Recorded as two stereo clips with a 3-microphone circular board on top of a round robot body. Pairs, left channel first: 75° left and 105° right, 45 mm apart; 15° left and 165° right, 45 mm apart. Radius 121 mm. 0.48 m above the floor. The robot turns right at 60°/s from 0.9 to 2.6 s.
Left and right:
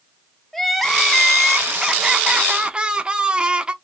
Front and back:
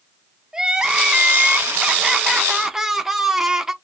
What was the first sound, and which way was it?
Crying, 155° left.